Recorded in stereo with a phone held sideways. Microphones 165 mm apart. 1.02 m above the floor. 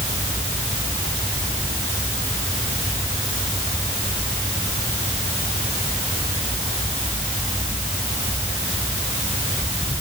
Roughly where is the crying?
No crying in this recording.